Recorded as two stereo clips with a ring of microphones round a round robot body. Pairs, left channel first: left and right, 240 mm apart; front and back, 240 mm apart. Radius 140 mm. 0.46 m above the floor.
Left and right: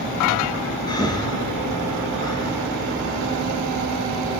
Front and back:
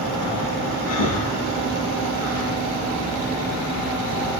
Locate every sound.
0.9 s breathing: 15° left, 9.5 m